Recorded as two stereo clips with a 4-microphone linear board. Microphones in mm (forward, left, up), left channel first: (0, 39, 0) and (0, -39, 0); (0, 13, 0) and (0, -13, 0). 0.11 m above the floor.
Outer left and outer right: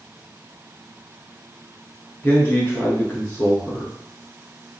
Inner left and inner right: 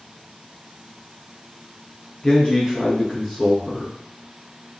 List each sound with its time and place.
2.2 s a man speaking: 25° left (ahead or behind), 1.5 m